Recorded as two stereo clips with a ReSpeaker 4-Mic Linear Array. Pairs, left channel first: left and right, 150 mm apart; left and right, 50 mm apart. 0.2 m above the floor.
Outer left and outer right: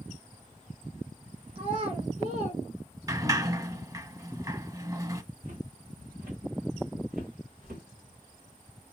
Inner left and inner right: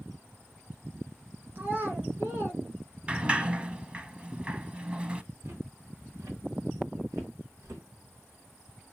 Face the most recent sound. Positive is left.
turn(degrees=-75)  # may be behind; listen again after turning